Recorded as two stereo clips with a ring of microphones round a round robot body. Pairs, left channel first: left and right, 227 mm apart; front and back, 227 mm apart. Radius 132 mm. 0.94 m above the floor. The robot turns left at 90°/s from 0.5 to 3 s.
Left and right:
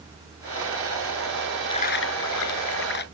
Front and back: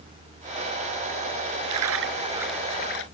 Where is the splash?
165° left; by 3.0 s 45° left.